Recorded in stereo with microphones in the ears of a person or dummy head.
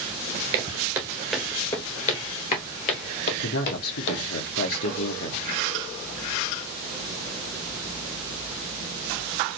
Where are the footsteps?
20° right (ahead or behind), 1.3 m; by 4.2 s 55° left (ahead or behind), 2 m.